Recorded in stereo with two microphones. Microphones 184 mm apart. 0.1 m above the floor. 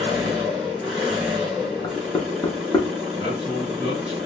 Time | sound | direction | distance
0.0 | an engine running | centre (ahead or behind) | 2.5 m
1.8 | knocking | 20° left (ahead or behind) | 0.8 m
3.1 | a man speaking | 35° right (ahead or behind) | 1.4 m